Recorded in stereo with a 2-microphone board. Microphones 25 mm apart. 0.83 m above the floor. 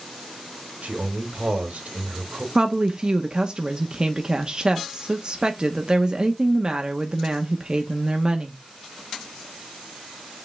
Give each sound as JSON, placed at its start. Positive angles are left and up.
{"t": 0.8, "sound": "a man speaking", "side_deg": -80, "distance_m": 3.0}
{"t": 2.5, "sound": "a woman speaking", "side_deg": -35, "distance_m": 1.1}